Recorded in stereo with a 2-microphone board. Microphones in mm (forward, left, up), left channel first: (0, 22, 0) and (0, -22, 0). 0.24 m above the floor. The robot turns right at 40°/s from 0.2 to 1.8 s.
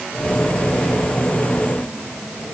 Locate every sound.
Only background noise.